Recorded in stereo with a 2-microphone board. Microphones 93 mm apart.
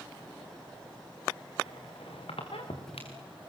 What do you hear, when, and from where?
1.7 s a squeak: 85° left, 5 m